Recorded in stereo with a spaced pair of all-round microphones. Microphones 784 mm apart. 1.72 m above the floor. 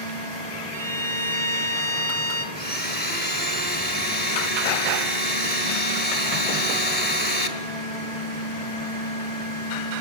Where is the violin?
75° left (ahead or behind), 3.5 m.